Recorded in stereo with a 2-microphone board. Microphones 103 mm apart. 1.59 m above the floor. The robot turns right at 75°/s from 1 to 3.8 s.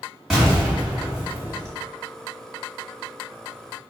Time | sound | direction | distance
0.3 | an explosion | 170° right | 1.7 m